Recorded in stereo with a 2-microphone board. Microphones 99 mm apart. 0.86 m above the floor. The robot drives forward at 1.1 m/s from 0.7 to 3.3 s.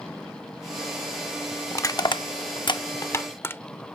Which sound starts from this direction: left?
Crushing, at 1.7 s.